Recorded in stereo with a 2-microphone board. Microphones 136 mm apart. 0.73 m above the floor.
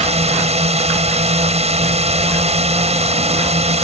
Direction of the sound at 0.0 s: 50° right (ahead or behind).